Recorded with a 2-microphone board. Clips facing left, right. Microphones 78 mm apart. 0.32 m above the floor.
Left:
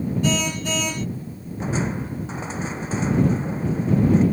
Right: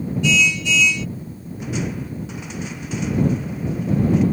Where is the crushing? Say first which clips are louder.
Left 1 dB; 35° left (ahead or behind).